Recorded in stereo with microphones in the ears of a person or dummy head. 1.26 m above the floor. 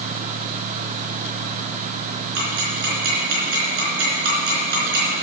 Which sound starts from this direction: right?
Ticking, at 2.4 s.